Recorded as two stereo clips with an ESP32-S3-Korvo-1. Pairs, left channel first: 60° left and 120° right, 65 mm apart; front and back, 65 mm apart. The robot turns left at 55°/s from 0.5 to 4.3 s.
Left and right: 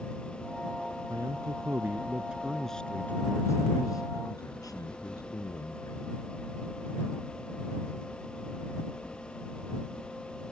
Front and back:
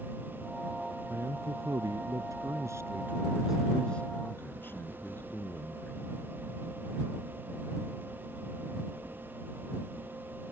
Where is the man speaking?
130° right; by 6.3 s 55° left.